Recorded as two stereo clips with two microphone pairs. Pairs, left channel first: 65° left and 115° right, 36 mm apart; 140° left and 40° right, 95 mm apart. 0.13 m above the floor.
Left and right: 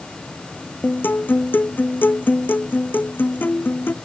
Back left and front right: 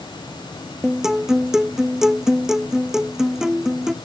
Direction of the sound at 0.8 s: 45° left.